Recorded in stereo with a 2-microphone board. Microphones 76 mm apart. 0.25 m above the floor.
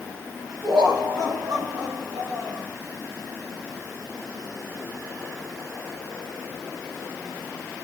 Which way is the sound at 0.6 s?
75° right (ahead or behind).